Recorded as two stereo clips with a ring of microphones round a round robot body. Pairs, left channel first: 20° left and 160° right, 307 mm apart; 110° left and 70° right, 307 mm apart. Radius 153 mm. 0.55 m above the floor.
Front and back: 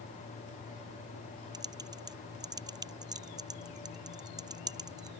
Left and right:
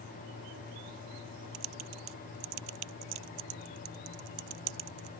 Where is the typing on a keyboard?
80° right.